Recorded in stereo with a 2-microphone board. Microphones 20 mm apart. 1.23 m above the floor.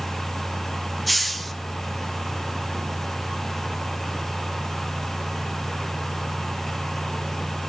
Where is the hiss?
Centre (ahead or behind), 1.0 m.